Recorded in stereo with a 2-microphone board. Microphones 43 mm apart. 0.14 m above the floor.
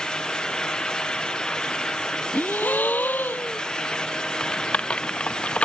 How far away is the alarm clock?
No alarm clock in this recording.